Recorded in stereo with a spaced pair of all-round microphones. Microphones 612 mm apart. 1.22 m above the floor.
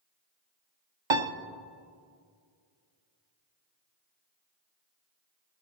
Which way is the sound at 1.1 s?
50° right (ahead or behind).